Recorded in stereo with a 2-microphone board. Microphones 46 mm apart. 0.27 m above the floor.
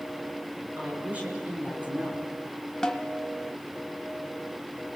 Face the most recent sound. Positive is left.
turn(degrees=15)  # may be behind; listen again after turning